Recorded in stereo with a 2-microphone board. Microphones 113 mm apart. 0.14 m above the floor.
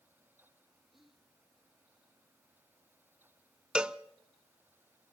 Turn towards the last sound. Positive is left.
turn(degrees=-10)  # may be behind; listen again after turning